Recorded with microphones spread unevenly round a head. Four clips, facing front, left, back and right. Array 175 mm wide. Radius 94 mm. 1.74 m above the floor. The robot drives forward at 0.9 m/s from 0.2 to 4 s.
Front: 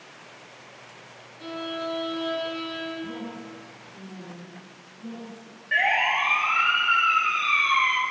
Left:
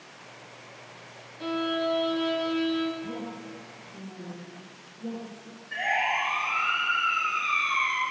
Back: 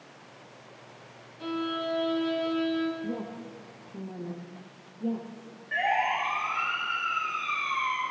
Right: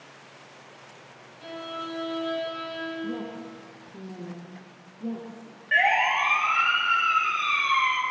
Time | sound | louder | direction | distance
1.4 | a violin | left 8 dB, back 1 dB | 105° left | 1.1 m
3.0 | a woman speaking | right 3 dB, even | 165° right | 3 m
5.7 | a siren | right 5 dB, front 2 dB | 50° right | 4 m